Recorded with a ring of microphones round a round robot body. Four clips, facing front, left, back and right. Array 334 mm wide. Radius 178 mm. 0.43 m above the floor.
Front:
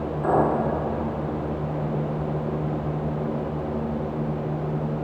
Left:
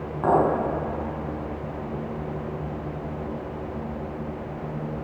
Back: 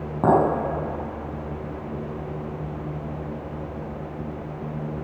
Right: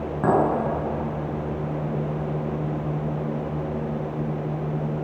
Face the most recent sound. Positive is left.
turn(degrees=-155)